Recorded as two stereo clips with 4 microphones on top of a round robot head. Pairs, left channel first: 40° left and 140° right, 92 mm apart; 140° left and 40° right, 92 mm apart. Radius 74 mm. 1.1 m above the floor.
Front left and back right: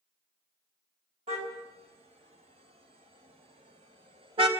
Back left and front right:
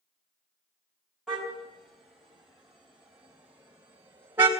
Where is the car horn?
135° right, 4 m; by 4.5 s 110° right, 2 m.